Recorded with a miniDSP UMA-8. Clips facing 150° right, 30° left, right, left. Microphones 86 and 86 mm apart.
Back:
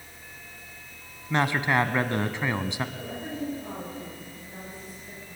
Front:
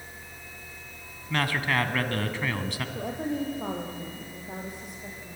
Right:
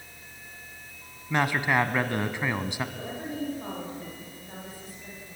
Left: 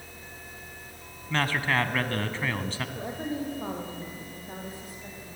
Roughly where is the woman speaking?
Ahead left.